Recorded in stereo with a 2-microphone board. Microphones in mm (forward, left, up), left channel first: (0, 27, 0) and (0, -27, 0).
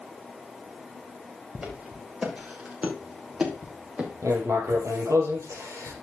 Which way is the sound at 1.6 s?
15° right (ahead or behind).